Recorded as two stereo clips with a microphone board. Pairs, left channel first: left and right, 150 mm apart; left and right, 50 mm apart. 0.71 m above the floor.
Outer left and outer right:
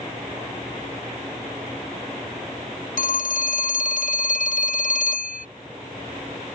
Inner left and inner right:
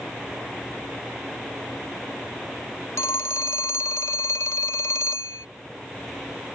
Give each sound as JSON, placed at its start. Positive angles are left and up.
{"t": 3.0, "sound": "a phone ringing", "side_deg": 70}